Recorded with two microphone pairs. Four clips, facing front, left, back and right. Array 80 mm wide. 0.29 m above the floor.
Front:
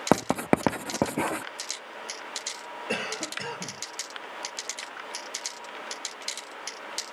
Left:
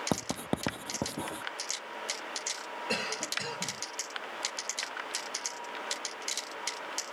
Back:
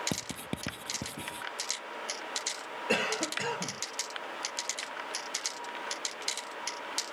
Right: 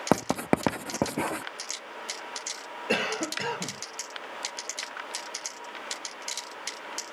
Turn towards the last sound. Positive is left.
turn(degrees=-105)